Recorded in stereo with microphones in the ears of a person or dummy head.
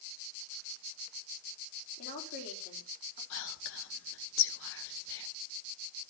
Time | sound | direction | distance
2.0 | a woman speaking | 50° left (ahead or behind) | 3.5 m
3.3 | whispering | 75° left (ahead or behind) | 1.9 m